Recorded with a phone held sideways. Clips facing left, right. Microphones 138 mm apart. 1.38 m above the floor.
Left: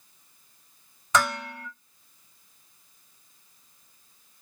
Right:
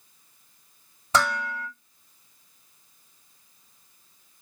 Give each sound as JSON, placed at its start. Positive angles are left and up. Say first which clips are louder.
{"t": 1.1, "sound": "dishes clattering", "louder": "right 1 dB", "side_deg": -35, "distance_m": 2.0}